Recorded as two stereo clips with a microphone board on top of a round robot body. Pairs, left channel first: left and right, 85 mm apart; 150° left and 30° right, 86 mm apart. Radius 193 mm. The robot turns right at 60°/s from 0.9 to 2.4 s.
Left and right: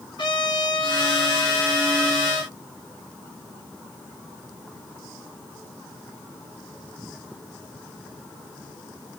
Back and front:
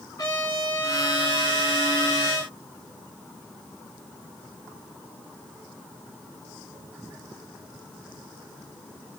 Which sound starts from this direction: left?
A trumpet, at 0.2 s.